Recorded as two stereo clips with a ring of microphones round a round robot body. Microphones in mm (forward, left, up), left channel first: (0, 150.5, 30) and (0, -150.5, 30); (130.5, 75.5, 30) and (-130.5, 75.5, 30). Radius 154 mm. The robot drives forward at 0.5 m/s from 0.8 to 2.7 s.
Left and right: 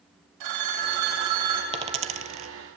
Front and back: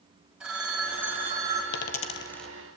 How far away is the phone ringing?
About 2.5 m.